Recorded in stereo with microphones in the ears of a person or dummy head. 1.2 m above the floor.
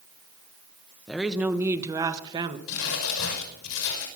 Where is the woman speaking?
Centre (ahead or behind), 1.2 m; by 2.6 s 25° right (ahead or behind), 1.6 m.